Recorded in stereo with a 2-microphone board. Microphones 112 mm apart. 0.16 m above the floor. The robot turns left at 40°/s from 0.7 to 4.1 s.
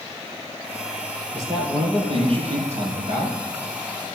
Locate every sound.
1.3 s a man speaking: 30° right, 3.5 m; by 3.4 s 110° right, 3.5 m